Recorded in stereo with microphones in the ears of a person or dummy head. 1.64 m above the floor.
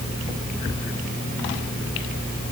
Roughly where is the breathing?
No breathing in this recording.